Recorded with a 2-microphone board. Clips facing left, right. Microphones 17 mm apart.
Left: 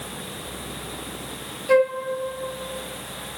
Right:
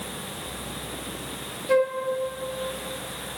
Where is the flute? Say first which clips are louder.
Left 4 dB; 20° left (ahead or behind), 0.8 m.